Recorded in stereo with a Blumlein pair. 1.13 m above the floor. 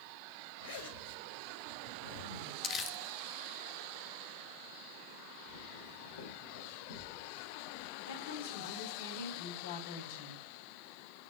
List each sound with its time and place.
0.6 s a zipper: 60° left, 4 m
2.6 s crumpling: 30° left, 1.5 m
5.5 s footsteps: 65° left, 8 m
8.0 s a woman speaking: 60° left, 8 m